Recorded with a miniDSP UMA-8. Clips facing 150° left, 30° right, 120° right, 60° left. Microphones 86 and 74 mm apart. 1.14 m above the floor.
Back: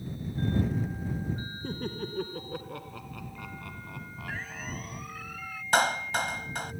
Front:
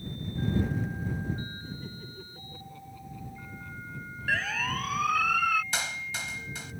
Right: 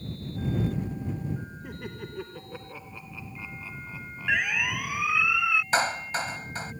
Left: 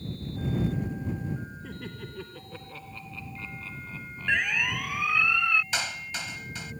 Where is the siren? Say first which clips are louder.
Front 10 dB, even; 35° right; by 5.6 s 40° right.